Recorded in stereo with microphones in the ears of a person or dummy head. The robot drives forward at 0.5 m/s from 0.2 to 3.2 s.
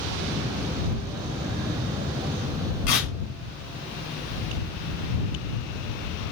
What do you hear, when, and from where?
2.9 s tearing paper: 45° left (ahead or behind), 2 m